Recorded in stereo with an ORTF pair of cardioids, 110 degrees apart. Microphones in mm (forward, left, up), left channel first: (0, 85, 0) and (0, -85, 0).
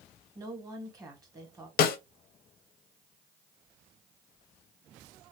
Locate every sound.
0.3 s a woman speaking: 20° right, 1.2 m
1.8 s a snare drum: 65° left, 0.5 m